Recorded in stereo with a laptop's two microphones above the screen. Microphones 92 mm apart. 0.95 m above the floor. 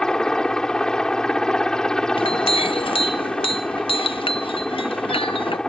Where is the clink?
65° left (ahead or behind).